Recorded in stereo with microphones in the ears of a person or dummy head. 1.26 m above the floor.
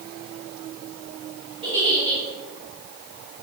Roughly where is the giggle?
Right.